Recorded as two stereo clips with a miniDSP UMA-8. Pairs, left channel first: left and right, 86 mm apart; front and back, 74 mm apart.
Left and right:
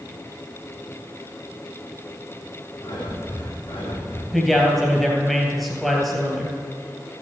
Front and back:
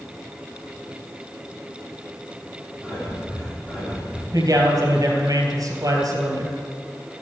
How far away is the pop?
No pop in this recording.